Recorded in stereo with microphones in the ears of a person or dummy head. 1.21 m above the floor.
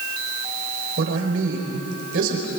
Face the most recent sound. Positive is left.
turn(degrees=-65)  # may be behind; listen again after turning